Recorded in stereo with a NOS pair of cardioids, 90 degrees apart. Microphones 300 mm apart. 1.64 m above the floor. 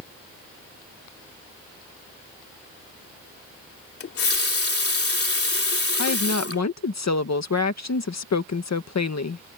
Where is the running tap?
50° left.